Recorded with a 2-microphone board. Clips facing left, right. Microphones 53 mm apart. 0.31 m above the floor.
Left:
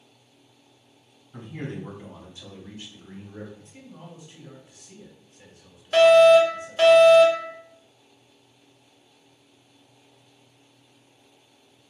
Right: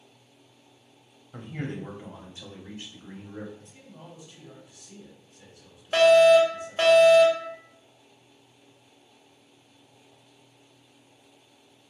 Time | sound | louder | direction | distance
1.3 | a man speaking | even | 40° right (ahead or behind) | 1.5 m
3.6 | a man speaking | left 3 dB | 25° left (ahead or behind) | 1.5 m
5.9 | a fire alarm | left 3 dB | 20° right (ahead or behind) | 1.9 m